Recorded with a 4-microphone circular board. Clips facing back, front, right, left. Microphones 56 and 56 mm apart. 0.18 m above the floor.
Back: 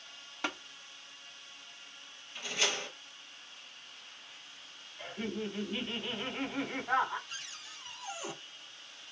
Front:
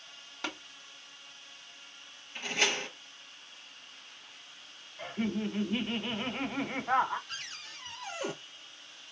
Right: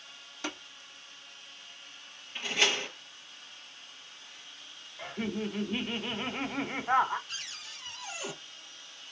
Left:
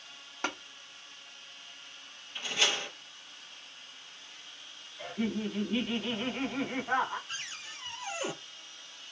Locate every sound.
0.4 s tapping: 105° left, 1.8 m
2.4 s a door slam: 45° right, 3.5 m
5.0 s laughter: 45° right, 1.2 m
7.3 s a cupboard door: 25° left, 1.2 m